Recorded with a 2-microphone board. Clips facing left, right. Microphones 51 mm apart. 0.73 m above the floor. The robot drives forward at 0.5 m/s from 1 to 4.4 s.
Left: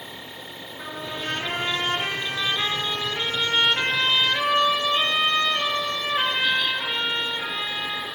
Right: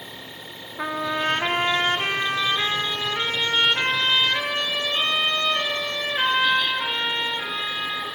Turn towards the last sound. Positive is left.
turn(degrees=-15)  # may be behind; listen again after turning